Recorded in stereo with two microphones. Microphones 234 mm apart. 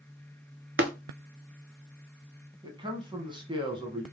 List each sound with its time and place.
0.8 s tapping: 60° right (ahead or behind), 0.7 m
2.6 s a man speaking: 20° right (ahead or behind), 1.1 m